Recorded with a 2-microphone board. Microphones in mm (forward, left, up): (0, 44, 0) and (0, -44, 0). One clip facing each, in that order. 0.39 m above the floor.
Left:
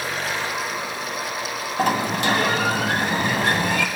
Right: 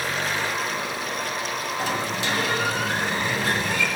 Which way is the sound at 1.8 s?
60° left (ahead or behind).